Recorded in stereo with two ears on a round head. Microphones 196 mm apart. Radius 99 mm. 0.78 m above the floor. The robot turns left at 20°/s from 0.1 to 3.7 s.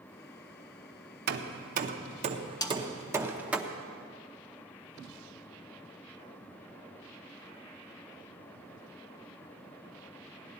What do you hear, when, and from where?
1.3 s hammering: 50° right (ahead or behind), 0.7 m; by 3.6 s 5° right (ahead or behind), 0.7 m
2.6 s a snare drum: 20° left (ahead or behind), 0.8 m